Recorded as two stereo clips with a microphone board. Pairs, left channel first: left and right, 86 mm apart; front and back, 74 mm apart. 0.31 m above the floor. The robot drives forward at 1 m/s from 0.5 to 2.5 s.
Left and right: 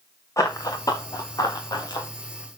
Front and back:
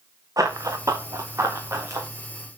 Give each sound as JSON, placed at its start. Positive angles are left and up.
{"t": 0.4, "sound": "running footsteps", "azimuth_deg": 140, "distance_m": 1.9}